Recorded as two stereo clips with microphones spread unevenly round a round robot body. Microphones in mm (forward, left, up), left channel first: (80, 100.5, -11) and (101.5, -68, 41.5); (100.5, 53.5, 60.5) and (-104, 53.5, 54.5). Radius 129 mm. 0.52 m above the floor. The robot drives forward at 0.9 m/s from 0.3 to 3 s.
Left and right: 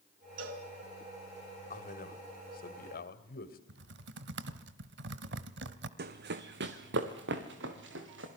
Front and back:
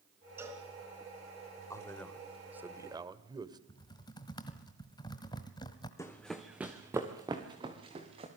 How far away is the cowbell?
About 2.5 m.